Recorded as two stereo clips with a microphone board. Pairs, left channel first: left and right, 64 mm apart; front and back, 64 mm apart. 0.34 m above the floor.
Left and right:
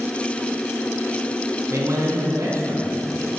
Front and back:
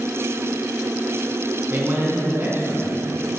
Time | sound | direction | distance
1.7 | a man speaking | 125° right | 3.5 m